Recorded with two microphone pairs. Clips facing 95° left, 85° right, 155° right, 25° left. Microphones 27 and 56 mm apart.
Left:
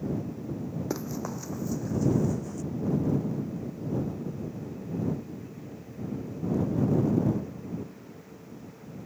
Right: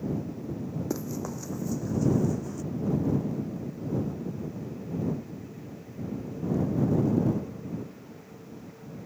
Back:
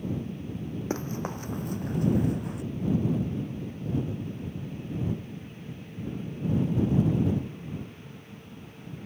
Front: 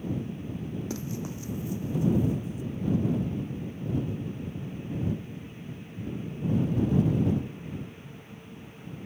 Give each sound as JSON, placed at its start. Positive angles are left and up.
{"t": 0.9, "sound": "running footsteps", "azimuth_deg": 160}